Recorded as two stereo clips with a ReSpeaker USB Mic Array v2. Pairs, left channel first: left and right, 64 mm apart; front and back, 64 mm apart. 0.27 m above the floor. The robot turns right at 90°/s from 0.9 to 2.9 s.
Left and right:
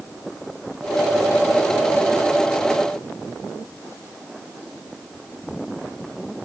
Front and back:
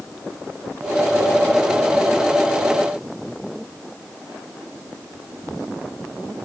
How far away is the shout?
No shout in this recording.